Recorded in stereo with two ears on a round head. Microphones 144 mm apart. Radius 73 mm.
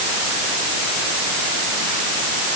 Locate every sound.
Only background noise.